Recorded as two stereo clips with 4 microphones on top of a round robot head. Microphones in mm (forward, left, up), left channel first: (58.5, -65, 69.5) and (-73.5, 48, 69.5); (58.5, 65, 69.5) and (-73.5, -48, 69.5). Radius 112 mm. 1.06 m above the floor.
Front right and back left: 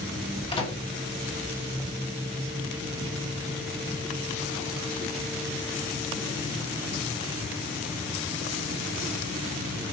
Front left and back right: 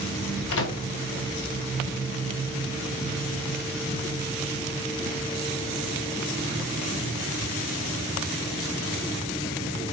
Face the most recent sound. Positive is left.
turn(degrees=25)